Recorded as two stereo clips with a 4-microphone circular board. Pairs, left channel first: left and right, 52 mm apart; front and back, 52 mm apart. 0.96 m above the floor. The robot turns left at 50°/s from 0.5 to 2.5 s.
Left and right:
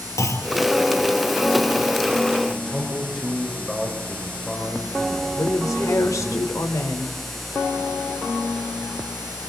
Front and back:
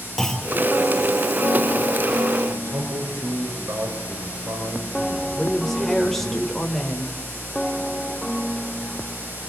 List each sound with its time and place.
0.2 s a clunk: 85° left, 2.5 m
2.5 s a man speaking: 175° left, 4.5 m
5.4 s a woman speaking: 90° left, 4 m